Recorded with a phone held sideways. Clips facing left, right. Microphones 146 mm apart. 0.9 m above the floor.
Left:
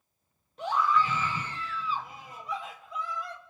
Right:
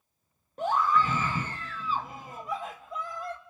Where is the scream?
45° right (ahead or behind), 1.3 m.